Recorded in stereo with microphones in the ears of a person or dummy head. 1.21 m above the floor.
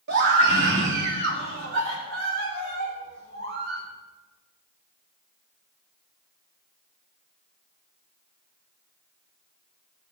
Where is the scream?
60° right (ahead or behind), 3 m; by 3.8 s 65° right (ahead or behind), 7.5 m.